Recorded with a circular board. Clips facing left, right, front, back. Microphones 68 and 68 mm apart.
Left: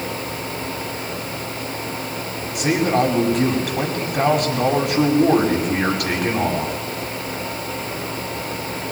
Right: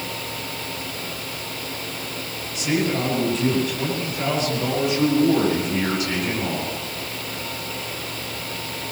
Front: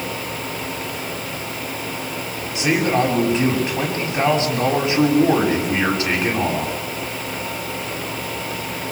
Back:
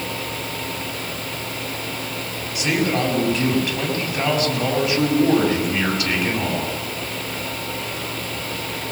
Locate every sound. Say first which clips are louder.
2.5 s a man speaking: left 5 dB, front 3 dB; 70° left, 8 m